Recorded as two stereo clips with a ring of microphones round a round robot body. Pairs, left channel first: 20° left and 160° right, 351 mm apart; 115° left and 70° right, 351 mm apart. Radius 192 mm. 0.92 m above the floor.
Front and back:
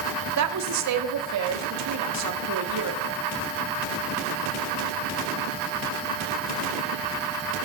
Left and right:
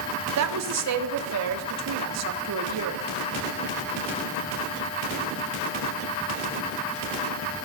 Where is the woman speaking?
115° right, 1.8 m.